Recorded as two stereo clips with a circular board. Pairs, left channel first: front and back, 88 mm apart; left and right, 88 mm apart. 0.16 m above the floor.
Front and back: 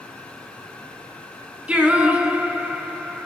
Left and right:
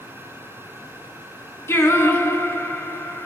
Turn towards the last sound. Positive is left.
turn(degrees=115)